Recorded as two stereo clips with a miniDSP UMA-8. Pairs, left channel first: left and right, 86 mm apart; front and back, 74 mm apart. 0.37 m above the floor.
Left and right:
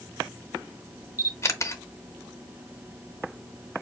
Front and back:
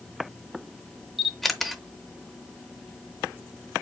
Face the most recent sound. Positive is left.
turn(degrees=90)